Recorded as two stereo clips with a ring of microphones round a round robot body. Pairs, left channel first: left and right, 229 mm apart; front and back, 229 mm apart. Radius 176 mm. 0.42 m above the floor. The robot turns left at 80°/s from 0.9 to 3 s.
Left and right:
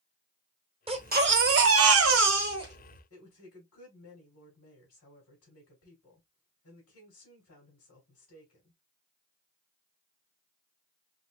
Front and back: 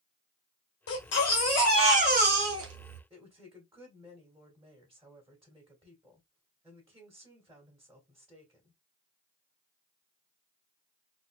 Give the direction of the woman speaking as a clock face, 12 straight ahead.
8 o'clock.